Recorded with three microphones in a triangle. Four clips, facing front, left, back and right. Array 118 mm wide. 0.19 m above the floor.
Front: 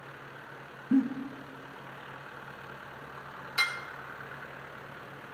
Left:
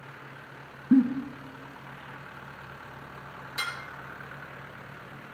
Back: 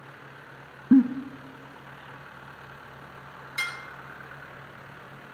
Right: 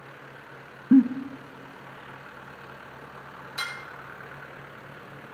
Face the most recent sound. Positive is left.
turn(degrees=5)